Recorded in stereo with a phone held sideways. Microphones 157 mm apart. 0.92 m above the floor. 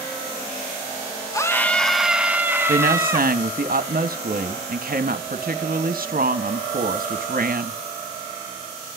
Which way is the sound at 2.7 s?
65° right (ahead or behind).